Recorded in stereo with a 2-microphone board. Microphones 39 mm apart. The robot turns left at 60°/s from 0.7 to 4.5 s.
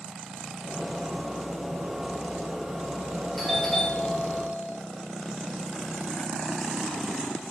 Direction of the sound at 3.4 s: 175° left.